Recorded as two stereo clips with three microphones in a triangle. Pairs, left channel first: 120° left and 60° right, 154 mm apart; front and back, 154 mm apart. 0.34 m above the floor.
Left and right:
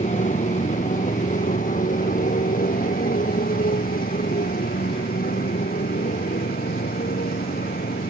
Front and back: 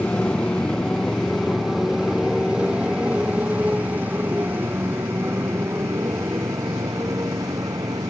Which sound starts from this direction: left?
A motorcycle, at 0.0 s.